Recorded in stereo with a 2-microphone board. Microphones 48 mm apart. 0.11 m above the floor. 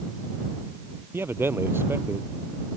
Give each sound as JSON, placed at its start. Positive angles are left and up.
{"t": 1.1, "sound": "a man speaking", "side_deg": -55}